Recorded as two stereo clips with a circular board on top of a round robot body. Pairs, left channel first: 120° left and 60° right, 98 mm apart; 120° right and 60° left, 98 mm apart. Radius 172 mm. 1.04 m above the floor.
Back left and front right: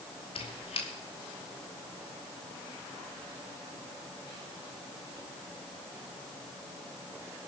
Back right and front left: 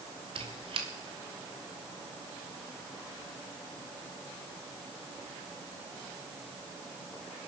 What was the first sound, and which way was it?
A squeak, 90° left.